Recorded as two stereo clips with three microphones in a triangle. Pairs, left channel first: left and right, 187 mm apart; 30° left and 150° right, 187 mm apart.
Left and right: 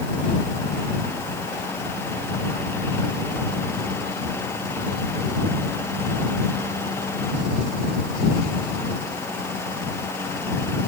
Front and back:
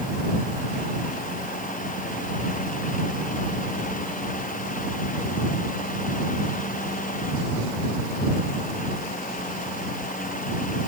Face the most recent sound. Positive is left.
No sound to turn to.